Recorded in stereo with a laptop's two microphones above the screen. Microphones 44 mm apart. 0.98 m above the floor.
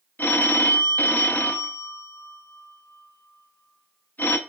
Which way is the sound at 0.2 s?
45° left (ahead or behind).